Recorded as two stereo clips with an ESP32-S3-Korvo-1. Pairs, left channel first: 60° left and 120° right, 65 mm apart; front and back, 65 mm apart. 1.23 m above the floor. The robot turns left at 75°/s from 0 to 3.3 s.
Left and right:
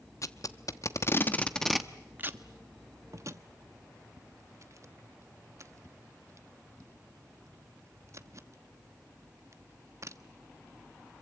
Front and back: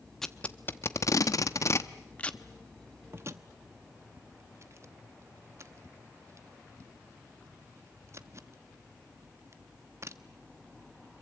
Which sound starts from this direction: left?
Tape being pulled, at 0.2 s.